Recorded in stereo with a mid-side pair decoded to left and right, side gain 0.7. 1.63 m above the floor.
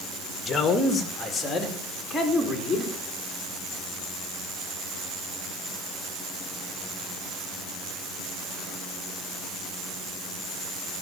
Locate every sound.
0.5 s a man speaking: 25° left, 2 m; by 2.9 s 10° left, 4 m